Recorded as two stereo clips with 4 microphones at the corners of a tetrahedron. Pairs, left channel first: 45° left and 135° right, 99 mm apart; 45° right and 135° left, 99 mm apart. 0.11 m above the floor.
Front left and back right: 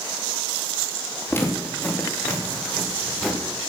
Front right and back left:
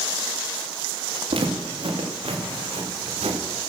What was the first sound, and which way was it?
Footsteps, 115° left.